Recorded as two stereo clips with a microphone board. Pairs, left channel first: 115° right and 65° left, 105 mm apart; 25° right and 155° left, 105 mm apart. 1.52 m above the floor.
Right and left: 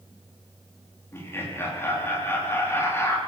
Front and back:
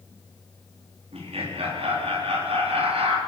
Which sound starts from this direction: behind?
Laughter, at 1.1 s.